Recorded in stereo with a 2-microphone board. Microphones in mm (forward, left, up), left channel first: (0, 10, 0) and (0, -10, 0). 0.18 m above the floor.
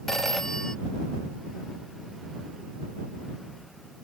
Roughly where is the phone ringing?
Left.